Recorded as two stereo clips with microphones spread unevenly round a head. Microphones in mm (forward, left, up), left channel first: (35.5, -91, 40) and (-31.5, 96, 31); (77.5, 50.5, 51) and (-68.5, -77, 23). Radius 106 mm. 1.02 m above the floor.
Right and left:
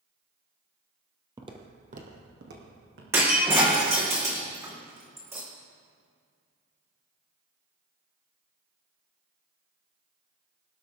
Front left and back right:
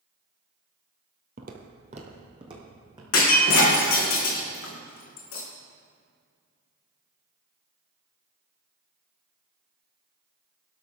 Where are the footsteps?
Straight behind, 1.4 m; by 3.0 s 150° left, 3.5 m.